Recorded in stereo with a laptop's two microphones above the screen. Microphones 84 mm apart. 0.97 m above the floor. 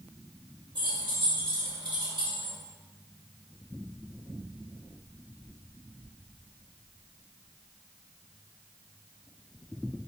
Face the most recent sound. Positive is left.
turn(degrees=-80)